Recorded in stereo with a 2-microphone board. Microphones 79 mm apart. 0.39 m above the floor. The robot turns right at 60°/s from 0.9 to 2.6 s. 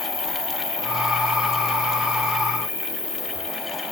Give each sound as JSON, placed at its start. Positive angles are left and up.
{"t": 0.0, "sound": "an insect", "azimuth_deg": -135, "distance_m": 3.5}